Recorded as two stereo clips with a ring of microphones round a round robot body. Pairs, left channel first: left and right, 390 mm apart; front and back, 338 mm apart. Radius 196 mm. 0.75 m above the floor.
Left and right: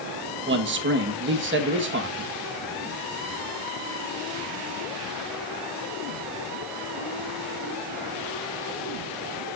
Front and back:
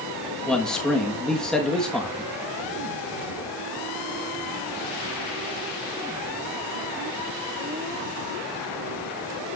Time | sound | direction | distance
0.5 | a man speaking | 85° right | 1.1 m